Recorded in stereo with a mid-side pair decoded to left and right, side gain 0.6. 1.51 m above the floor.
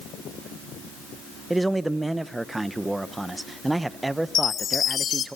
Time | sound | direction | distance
1.5 | a man speaking | 10° right | 1.0 m
4.3 | a chime | 40° left | 1.3 m